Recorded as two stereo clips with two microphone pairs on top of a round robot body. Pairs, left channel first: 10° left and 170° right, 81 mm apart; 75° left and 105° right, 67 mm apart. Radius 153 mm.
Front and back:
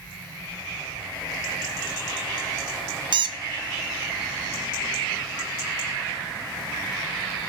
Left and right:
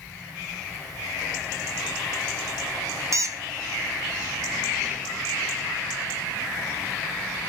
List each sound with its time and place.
3.1 s a squeak: 150° right, 0.6 m